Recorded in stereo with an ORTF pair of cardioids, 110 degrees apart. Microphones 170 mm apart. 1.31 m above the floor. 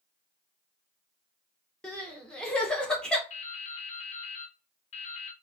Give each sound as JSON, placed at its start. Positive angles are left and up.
{"t": 1.8, "sound": "crying", "azimuth_deg": 5, "distance_m": 1.0}
{"t": 3.3, "sound": "dripping", "azimuth_deg": 45, "distance_m": 0.8}